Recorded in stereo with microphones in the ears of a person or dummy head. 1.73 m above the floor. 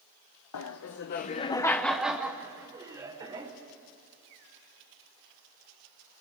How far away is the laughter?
About 0.8 m.